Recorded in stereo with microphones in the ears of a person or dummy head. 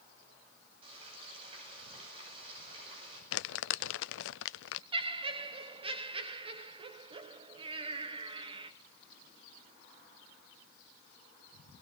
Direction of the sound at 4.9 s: 35° right (ahead or behind).